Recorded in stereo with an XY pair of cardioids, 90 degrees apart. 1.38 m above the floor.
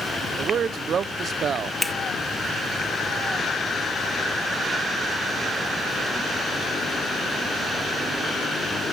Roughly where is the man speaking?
Ahead right.